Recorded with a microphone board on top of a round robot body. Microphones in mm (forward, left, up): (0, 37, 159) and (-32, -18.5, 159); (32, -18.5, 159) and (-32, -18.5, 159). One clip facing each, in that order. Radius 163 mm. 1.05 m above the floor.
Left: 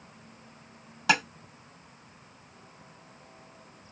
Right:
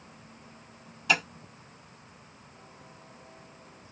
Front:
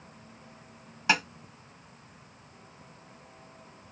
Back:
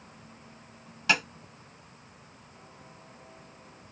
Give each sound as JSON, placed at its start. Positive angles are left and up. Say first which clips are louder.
{"t": 1.1, "sound": "tapping", "louder": "left 2 dB, front 1 dB", "azimuth_deg": 70, "distance_m": 1.0}